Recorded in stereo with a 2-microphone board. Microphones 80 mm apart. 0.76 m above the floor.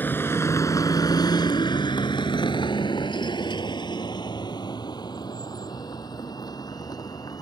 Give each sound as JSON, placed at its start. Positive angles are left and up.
{"t": 0.0, "sound": "a vehicle", "side_deg": 25}